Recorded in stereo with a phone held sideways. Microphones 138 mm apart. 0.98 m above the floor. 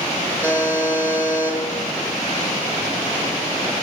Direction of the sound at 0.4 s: 15° right (ahead or behind).